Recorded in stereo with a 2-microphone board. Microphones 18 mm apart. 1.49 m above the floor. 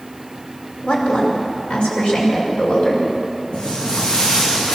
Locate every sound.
0.8 s a woman speaking: 85° left, 5.5 m; by 3.1 s 90° left, 7.5 m
3.5 s footsteps: 75° left (ahead or behind), 7 m